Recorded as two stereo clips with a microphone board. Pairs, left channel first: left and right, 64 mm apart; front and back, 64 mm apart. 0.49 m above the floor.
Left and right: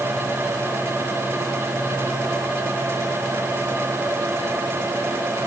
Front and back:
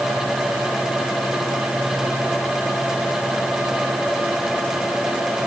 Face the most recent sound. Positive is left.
No sound to turn to.